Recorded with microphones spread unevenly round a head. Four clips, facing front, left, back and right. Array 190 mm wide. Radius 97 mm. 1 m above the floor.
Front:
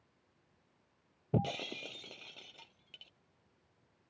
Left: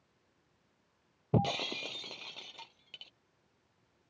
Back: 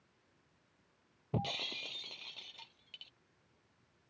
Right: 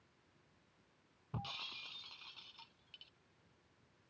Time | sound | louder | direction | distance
1.3 | breaking glass | left 17 dB, front 4 dB | 70° left | ?